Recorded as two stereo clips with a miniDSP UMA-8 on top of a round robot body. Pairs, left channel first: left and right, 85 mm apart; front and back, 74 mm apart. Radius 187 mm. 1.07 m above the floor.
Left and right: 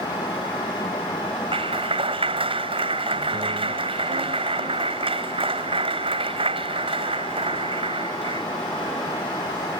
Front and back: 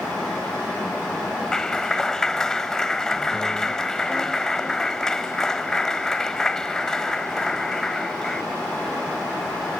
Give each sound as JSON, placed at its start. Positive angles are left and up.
{"t": 1.5, "sound": "a clap", "azimuth_deg": -80}